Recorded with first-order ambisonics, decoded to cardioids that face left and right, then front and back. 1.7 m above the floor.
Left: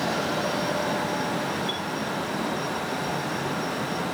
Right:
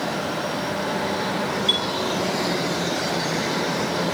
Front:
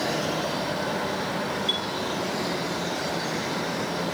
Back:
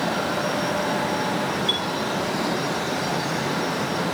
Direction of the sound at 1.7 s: 105° right.